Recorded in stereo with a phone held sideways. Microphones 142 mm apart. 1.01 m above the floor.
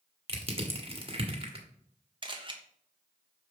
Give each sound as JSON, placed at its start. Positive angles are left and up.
{"t": 0.3, "sound": "crushing", "side_deg": -40, "distance_m": 1.6}
{"t": 2.2, "sound": "a camera shutter", "side_deg": -35, "distance_m": 1.1}